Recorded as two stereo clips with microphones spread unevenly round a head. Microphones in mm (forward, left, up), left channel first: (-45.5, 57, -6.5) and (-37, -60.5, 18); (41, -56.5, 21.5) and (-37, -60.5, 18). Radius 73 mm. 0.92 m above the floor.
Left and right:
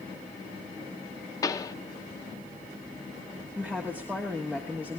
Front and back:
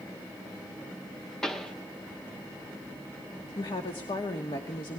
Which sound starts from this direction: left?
A pop, at 1.4 s.